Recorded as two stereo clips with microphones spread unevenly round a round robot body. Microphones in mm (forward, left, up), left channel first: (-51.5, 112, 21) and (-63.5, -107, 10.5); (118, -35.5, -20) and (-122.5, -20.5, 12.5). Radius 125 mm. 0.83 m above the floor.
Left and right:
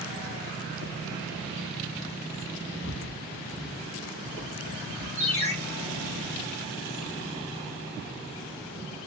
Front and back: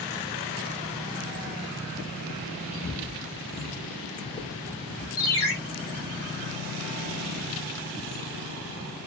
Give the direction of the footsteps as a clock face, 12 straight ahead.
10 o'clock.